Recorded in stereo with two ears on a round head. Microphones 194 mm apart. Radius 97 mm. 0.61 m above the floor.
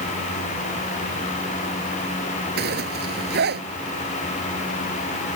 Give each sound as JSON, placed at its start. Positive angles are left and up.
{"t": 2.6, "sound": "a zipper", "side_deg": -45}